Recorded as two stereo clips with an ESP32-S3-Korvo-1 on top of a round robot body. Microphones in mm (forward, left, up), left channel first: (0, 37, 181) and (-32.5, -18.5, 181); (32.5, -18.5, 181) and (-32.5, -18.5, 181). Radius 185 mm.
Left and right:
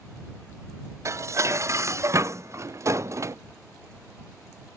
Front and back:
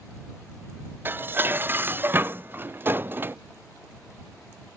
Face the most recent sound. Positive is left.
turn(degrees=-135)